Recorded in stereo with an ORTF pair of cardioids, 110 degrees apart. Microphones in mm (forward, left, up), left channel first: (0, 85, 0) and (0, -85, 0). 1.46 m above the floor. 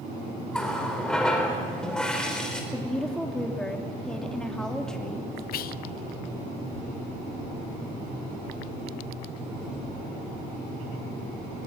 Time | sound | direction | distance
0.5 | a running tap | 5° left | 4 m
2.7 | a woman speaking | 5° left | 3 m
5.5 | whispering | 60° left | 1.1 m